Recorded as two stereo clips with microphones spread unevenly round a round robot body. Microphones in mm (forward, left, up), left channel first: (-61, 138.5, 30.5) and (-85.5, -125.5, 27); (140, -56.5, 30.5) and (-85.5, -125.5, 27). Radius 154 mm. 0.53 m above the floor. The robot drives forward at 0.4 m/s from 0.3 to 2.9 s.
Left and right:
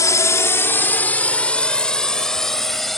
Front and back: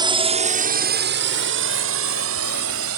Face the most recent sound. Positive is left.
turn(degrees=175)